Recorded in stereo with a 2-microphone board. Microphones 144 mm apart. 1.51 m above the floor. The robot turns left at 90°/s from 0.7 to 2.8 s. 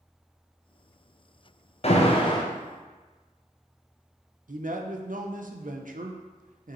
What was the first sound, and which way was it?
An alarm, 90° left.